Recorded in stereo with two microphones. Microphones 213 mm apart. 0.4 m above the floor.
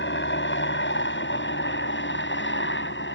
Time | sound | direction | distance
0.0 | a helicopter | 60° left (ahead or behind) | ?